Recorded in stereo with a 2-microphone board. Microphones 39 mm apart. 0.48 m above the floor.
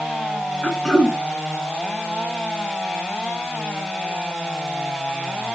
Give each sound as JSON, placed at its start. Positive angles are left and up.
{"t": 0.6, "sound": "throat clearing", "side_deg": 15, "distance_m": 1.3}